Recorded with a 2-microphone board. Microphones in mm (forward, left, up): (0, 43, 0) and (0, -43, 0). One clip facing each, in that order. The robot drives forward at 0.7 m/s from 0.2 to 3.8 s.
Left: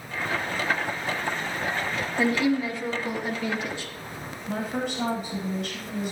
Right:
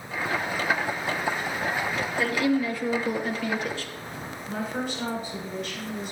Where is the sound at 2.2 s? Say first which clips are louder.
Left 1 dB; 25° left (ahead or behind), 1.5 m; by 3.9 s 15° left (ahead or behind), 2 m.